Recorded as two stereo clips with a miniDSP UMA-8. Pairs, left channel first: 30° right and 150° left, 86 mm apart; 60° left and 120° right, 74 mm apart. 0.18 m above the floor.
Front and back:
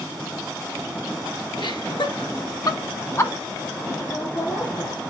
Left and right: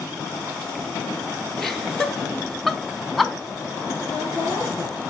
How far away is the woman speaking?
About 3 m.